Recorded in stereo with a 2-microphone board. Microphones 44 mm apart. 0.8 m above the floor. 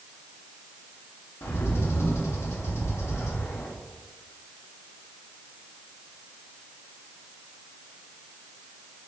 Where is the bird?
85° left, 0.9 m.